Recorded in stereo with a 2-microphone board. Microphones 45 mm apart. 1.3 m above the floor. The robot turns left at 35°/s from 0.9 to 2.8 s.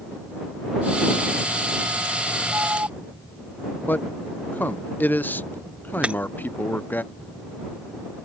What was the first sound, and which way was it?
An alarm, 75° right (ahead or behind).